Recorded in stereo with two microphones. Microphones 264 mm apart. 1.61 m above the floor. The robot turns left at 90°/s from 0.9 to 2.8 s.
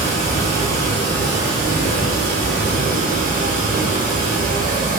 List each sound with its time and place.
0.0 s running water: 30° left, 1.2 m; by 5.0 s 140° right, 1.2 m